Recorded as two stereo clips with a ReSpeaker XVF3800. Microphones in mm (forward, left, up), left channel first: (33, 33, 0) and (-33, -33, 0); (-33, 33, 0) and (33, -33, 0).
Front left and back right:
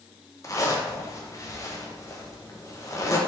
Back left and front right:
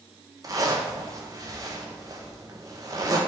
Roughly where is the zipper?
Ahead.